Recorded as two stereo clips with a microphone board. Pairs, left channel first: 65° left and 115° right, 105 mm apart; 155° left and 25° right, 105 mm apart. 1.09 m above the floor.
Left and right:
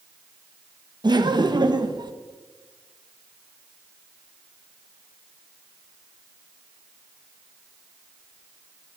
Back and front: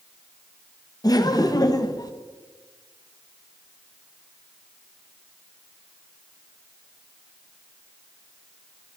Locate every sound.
1.0 s laughter: 155° right, 1.2 m